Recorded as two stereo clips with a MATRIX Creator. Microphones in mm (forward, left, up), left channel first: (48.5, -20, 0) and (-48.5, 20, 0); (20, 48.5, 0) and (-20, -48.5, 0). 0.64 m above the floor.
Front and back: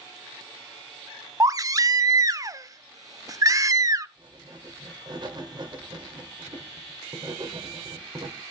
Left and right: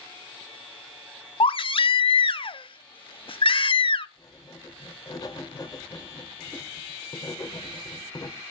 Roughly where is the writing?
Behind left.